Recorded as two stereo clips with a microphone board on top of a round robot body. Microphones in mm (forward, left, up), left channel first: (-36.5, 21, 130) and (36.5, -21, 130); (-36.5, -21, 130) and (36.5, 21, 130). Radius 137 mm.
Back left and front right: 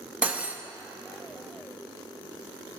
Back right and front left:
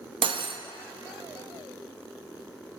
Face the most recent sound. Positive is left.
turn(degrees=45)